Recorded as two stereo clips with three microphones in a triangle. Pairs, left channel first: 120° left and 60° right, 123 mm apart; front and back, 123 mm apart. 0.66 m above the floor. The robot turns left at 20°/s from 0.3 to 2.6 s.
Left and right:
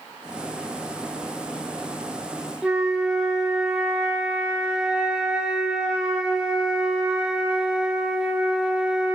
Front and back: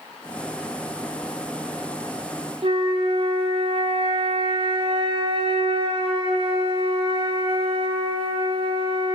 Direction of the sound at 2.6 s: 140° right.